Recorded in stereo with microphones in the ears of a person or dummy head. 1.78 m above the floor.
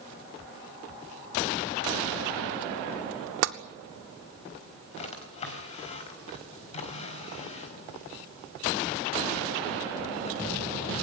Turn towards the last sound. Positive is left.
turn(degrees=40)  # may be behind; listen again after turning